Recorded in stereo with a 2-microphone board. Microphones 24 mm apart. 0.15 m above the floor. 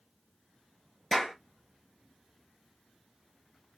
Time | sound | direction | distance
1.1 | a clap | 10° left (ahead or behind) | 3 m